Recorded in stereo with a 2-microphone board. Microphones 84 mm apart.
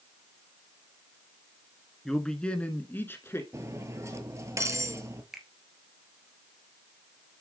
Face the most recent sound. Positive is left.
turn(degrees=-5)  # may be behind; listen again after turning